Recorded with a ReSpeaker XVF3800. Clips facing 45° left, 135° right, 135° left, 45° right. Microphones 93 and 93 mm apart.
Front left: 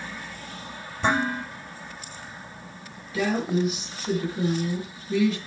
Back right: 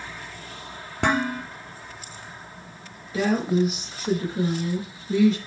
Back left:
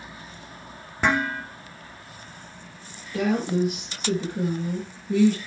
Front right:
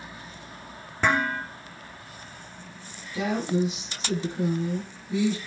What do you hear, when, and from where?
1.0 s dishes clattering: 145° right, 3.5 m
3.1 s a woman speaking: 170° left, 5 m